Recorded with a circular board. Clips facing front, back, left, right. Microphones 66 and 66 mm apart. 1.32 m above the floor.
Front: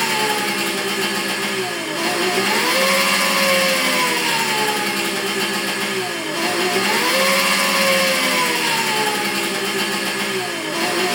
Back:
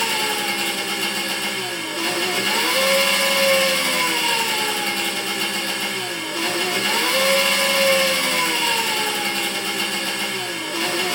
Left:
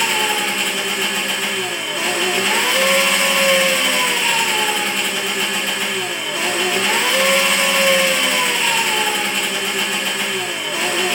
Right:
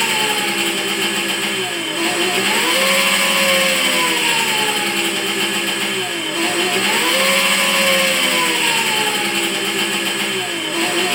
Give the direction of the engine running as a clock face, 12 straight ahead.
12 o'clock.